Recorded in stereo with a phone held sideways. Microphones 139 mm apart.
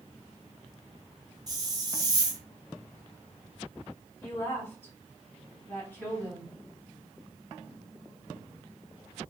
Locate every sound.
1.5 s a hiss: 30° right (ahead or behind), 0.6 m
4.2 s a woman speaking: 15° left (ahead or behind), 1.4 m